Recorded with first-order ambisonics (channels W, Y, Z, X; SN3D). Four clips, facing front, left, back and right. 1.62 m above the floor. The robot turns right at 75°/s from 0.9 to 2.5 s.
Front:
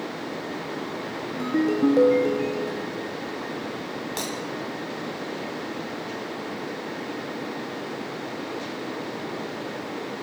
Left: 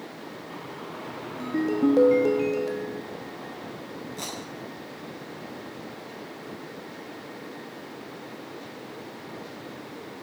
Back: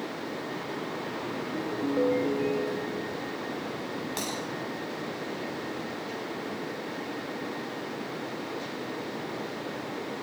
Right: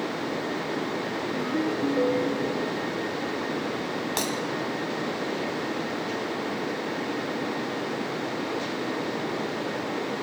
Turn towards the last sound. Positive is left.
turn(degrees=-80)